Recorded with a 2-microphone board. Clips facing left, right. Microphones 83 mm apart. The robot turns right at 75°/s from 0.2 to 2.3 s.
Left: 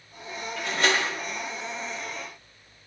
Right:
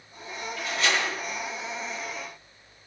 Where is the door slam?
100° left, 6.5 m; by 1.1 s 140° left, 6.5 m.